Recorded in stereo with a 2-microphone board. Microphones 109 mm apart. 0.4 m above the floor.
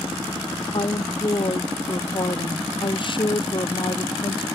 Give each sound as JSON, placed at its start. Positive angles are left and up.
{"t": 0.7, "sound": "a woman speaking", "side_deg": 50}